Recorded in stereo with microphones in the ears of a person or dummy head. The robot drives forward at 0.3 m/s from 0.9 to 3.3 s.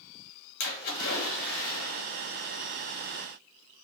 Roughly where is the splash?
Left.